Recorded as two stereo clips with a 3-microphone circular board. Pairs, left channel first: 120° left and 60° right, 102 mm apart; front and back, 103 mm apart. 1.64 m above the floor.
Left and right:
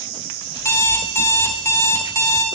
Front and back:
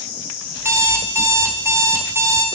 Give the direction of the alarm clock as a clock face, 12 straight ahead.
7 o'clock.